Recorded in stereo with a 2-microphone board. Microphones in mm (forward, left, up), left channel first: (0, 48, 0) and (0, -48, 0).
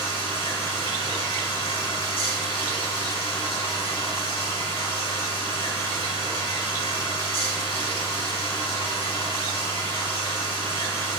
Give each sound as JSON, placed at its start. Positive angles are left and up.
{"t": 0.0, "sound": "running water", "side_deg": 70, "distance_m": 6.0}